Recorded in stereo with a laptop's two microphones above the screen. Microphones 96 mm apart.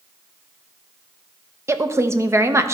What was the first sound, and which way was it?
A woman speaking, 25° right (ahead or behind).